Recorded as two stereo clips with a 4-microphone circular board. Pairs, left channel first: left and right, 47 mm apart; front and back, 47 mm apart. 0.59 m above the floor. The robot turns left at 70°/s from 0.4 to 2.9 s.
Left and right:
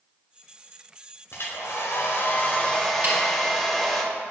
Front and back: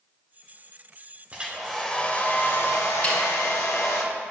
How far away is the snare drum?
About 2 m.